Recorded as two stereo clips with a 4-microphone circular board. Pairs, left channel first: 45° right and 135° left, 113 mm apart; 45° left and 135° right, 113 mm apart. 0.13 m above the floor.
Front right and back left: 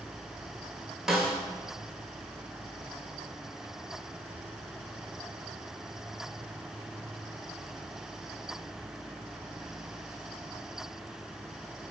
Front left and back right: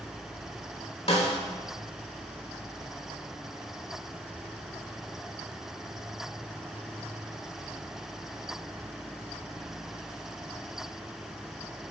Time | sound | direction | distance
1.1 | a snare drum | 50° left | 0.6 m